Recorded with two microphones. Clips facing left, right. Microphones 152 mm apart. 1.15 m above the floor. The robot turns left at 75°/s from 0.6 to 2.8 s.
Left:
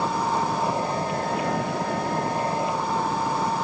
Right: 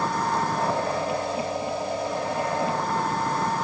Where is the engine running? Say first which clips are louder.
Left 1 dB; 170° left; by 3.6 s 5° left.